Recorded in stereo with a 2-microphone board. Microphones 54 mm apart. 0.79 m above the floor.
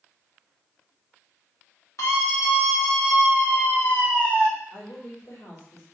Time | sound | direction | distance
2.0 | a scream | 70° left (ahead or behind) | 2.0 m
4.7 | a woman speaking | 80° left | 2.5 m